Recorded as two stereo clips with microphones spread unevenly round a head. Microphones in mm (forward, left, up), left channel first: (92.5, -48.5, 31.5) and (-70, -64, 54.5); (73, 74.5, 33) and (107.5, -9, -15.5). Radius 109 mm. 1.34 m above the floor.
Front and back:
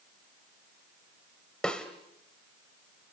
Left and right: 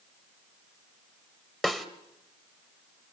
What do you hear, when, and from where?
1.6 s a snare drum: 100° left, 1.2 m